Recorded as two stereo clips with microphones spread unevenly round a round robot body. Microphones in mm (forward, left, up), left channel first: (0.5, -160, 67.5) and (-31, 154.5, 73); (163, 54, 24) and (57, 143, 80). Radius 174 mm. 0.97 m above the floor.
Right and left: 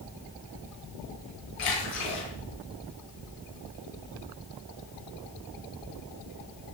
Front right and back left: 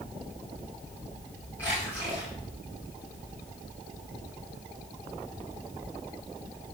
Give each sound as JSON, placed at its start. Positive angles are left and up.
{"t": 1.6, "sound": "a splash", "azimuth_deg": -120, "distance_m": 9.0}